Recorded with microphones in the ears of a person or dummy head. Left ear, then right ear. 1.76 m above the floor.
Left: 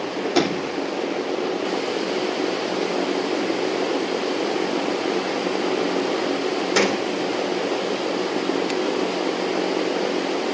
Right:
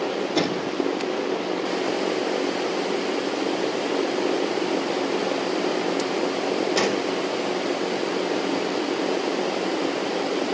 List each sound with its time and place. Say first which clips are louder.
0.3 s a sliding door: left 4 dB; 65° left (ahead or behind), 4.5 m